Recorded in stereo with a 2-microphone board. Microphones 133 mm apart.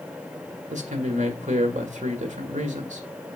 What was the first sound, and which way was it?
A man speaking, 65° right (ahead or behind).